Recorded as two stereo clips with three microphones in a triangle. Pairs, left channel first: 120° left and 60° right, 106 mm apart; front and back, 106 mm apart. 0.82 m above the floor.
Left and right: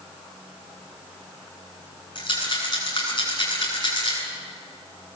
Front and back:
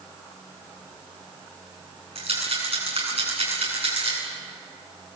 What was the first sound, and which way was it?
A rattle, 160° left.